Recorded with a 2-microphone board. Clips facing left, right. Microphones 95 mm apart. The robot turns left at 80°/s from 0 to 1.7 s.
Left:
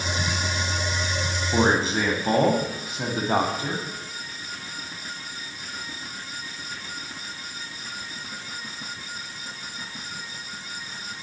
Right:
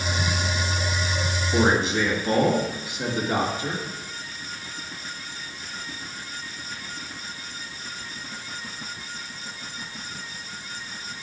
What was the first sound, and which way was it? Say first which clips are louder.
A man speaking: even; 45° left (ahead or behind).